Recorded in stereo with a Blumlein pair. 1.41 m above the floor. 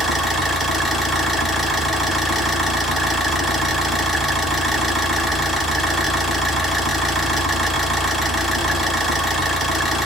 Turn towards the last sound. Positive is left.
turn(degrees=0)